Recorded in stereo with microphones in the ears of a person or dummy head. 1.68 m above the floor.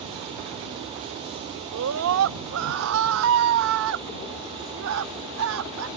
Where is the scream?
75° right (ahead or behind); by 5.9 s 80° right.